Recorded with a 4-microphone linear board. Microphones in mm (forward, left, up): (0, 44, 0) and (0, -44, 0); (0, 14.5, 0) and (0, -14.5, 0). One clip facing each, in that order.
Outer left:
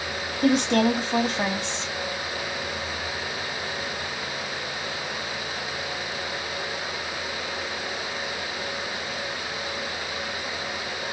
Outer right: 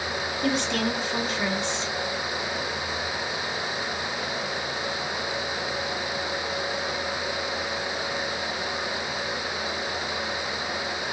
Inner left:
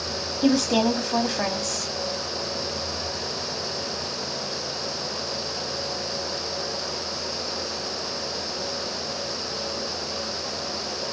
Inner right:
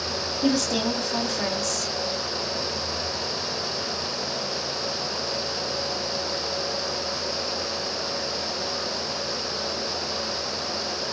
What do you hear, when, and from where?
0.4 s a woman speaking: 70° left (ahead or behind), 2.5 m